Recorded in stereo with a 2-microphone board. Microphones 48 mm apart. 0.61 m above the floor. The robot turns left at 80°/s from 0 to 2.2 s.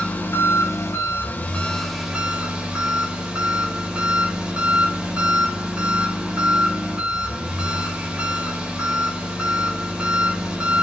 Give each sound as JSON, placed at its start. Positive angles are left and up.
{"t": 0.0, "sound": "an engine running", "azimuth_deg": 150, "distance_m": 2.0}